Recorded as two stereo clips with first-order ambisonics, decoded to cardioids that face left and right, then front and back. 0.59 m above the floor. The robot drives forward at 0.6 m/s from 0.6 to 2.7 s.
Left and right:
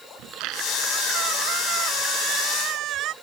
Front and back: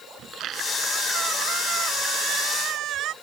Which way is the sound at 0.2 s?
125° right.